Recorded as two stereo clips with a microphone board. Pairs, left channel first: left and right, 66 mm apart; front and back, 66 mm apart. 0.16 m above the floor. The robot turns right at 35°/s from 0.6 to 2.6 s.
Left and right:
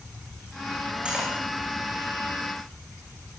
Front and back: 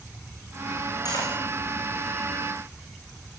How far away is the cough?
No cough in this recording.